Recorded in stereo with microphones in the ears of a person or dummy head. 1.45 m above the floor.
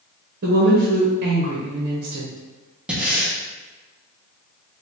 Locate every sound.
0.4 s a woman speaking: 55° right (ahead or behind), 0.8 m
2.9 s breathing: 5° right (ahead or behind), 0.6 m